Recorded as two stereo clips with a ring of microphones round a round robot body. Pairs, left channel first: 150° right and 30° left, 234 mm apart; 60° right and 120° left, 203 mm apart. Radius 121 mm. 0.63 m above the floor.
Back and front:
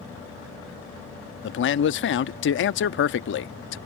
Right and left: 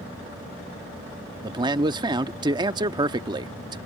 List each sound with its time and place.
1.4 s a man speaking: 175° right